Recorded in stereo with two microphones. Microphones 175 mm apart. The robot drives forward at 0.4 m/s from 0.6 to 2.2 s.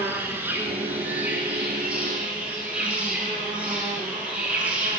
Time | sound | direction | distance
0.0 | an insect | 10° right (ahead or behind) | 0.7 m